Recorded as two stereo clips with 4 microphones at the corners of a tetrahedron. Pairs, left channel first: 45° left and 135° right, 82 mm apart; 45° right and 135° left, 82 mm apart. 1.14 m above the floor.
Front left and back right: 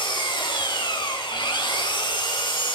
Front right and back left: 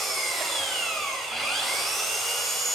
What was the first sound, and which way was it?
An engine running, 45° left.